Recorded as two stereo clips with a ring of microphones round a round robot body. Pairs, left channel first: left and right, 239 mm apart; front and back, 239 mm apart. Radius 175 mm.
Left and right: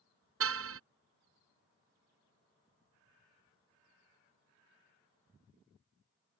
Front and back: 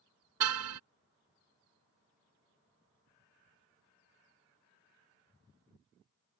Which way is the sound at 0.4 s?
140° right.